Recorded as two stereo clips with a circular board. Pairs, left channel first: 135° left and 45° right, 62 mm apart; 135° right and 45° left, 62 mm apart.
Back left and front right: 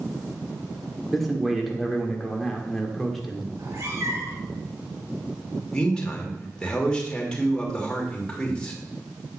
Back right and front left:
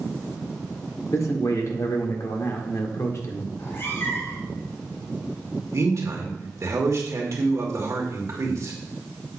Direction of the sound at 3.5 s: 85° right.